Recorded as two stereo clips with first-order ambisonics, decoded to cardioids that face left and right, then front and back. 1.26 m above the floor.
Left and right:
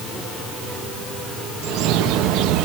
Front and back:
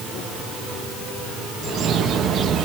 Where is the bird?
125° right, 1.3 m.